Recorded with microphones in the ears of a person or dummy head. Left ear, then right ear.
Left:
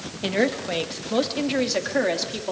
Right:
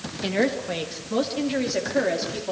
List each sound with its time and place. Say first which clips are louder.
0.2 s a woman speaking: left 1 dB; 5° left (ahead or behind), 1.9 m; by 2.5 s 25° left (ahead or behind), 3.5 m